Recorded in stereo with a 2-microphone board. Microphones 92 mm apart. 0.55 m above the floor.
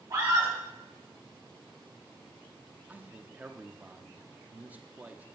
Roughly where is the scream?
Right.